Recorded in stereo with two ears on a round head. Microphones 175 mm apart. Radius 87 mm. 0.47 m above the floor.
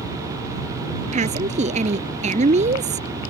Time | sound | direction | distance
1.1 | a woman speaking | 35° right (ahead or behind) | ?